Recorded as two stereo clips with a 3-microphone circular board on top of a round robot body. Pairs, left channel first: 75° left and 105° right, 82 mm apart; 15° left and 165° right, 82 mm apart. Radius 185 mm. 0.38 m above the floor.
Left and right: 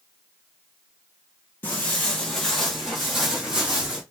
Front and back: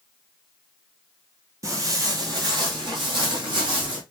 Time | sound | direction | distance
1.6 | footsteps | 145° left | 0.9 m